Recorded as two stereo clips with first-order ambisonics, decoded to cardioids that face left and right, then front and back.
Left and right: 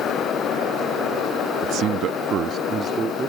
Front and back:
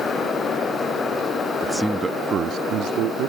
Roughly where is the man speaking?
Right.